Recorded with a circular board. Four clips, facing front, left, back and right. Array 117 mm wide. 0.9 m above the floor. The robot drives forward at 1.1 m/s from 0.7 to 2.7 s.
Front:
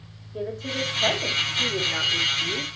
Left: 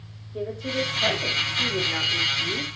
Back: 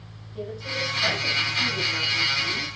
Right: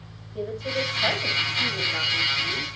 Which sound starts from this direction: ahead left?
A woman speaking, at 0.3 s.